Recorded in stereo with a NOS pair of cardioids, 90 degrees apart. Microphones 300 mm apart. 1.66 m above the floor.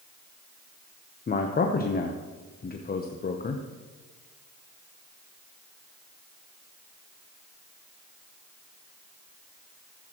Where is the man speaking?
30° left, 0.9 m.